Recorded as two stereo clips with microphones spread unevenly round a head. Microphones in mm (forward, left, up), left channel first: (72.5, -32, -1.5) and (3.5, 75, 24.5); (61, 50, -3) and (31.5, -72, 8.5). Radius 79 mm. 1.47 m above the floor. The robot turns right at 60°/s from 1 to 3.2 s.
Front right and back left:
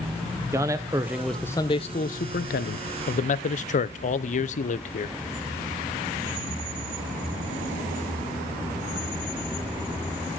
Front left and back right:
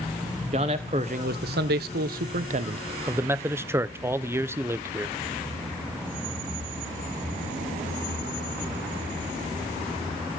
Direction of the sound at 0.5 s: 160° right.